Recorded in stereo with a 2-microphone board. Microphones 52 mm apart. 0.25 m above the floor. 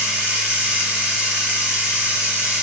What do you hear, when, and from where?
0.0 s running water: 20° right (ahead or behind), 0.8 m